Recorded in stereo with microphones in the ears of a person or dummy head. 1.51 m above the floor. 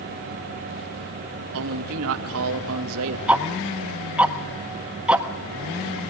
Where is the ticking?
5° right (ahead or behind), 1.6 m.